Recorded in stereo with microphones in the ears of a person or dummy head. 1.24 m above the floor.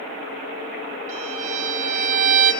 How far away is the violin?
About 4 m.